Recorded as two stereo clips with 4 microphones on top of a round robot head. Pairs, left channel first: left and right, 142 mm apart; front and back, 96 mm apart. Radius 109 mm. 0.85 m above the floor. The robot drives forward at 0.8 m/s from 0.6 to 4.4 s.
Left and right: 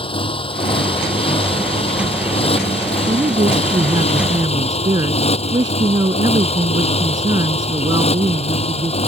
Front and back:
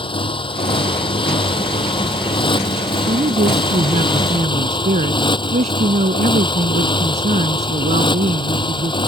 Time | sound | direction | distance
0.0 | a motorcycle | 35° left | ?
3.1 | a man speaking | 155° right | ?